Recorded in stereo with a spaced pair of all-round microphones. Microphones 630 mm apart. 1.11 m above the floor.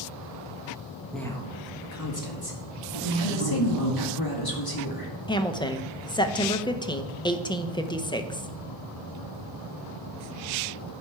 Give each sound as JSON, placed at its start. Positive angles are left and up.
{"t": 1.1, "sound": "a woman speaking", "side_deg": 0, "distance_m": 1.5}
{"t": 3.2, "sound": "a woman speaking", "side_deg": 35, "distance_m": 2.0}
{"t": 5.3, "sound": "a woman speaking", "side_deg": 5, "distance_m": 0.7}